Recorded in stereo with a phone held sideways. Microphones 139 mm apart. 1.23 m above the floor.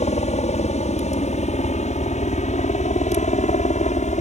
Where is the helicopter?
60° left (ahead or behind); by 4.2 s 65° left (ahead or behind).